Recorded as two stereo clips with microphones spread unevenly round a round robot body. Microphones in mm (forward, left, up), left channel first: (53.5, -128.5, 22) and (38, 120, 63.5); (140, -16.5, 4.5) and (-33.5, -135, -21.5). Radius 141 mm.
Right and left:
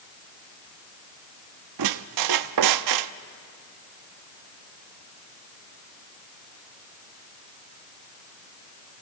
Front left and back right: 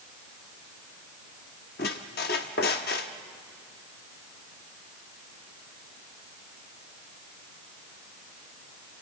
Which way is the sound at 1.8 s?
90° left.